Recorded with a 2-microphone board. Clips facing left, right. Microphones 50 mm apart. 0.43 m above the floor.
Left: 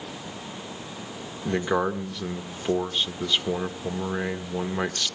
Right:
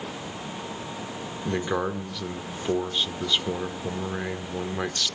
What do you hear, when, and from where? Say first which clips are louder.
1.4 s a man speaking: left 3 dB; 10° left (ahead or behind), 0.8 m